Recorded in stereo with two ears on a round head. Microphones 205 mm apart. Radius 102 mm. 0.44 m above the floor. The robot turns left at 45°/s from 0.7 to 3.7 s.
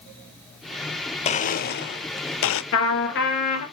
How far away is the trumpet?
About 2.5 m.